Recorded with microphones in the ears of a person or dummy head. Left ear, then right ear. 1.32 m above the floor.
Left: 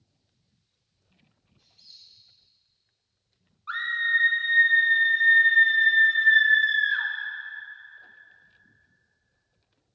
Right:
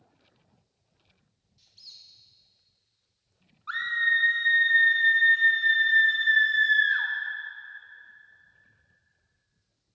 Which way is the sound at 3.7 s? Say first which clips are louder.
Even; centre (ahead or behind).